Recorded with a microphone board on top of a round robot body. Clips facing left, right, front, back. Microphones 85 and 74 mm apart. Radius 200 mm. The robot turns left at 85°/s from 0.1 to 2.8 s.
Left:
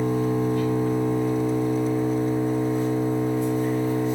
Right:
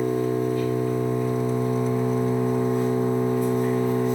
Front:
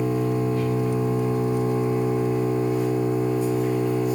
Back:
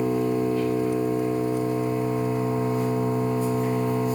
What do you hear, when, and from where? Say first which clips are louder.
0.0 s an engine running: even, even; 95° left, 1.7 m; by 4.2 s 135° right, 1.7 m